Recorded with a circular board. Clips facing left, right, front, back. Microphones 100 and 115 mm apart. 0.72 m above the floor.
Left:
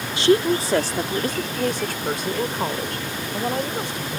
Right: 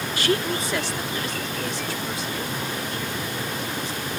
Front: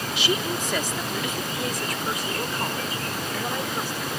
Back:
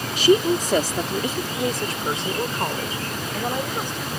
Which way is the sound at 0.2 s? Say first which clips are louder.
Left 7 dB, back 11 dB; 145° left.